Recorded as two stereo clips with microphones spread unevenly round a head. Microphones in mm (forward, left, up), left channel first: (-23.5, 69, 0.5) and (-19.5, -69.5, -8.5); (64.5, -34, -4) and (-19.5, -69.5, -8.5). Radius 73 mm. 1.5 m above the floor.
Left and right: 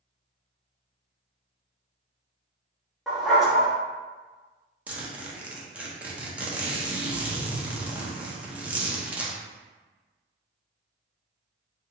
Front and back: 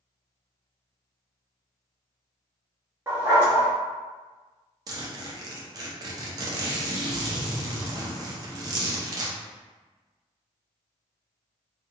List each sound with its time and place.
3.1 s a dog barking: 175° left, 0.9 m
4.9 s a zipper: 170° right, 0.8 m